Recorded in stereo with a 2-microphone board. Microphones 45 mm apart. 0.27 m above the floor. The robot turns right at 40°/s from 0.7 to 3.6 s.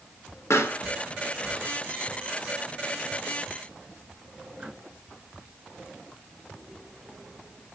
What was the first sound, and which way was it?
A pop, 85° left.